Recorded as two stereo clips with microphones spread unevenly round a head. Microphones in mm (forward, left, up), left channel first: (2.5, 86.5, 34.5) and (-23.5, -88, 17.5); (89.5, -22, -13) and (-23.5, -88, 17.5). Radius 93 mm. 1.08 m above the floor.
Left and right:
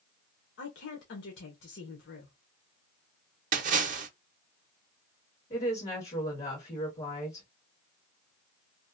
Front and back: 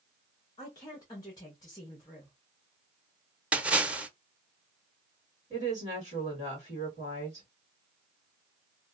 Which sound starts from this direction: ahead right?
A splash, at 3.5 s.